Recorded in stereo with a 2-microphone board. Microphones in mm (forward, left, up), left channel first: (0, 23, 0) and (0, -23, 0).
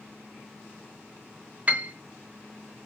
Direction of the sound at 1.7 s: 35° right (ahead or behind).